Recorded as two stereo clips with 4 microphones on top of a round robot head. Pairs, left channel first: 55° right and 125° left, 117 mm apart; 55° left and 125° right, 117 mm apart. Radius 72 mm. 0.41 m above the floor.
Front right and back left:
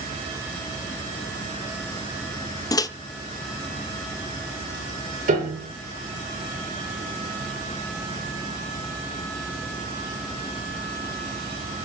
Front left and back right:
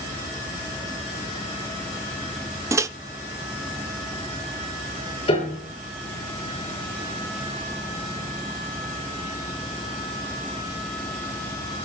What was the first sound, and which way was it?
A microwave, 80° right.